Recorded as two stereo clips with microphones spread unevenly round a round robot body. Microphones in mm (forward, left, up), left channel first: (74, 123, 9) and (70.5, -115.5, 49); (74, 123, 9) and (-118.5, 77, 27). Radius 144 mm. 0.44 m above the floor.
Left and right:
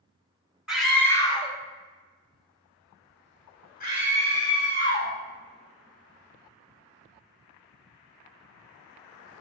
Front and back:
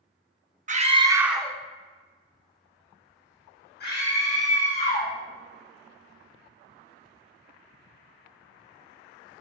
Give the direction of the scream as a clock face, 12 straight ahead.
6 o'clock.